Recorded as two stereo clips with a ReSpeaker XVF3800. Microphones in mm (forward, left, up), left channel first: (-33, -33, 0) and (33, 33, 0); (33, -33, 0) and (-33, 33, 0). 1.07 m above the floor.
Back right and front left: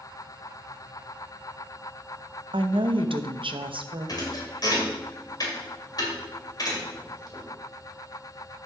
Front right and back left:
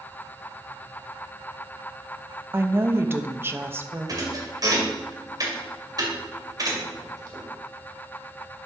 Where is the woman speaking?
70° left, 0.7 m.